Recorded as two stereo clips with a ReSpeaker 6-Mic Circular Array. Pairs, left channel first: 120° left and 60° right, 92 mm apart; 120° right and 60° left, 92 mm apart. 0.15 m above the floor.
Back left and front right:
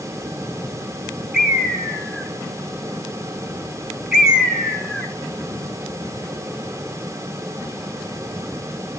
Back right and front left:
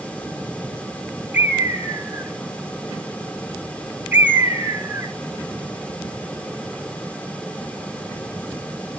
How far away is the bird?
About 1.0 m.